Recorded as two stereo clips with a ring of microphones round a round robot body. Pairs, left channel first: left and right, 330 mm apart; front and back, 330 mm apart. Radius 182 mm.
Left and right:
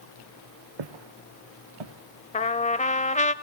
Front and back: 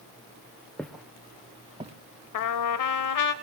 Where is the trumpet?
25° left, 0.8 m.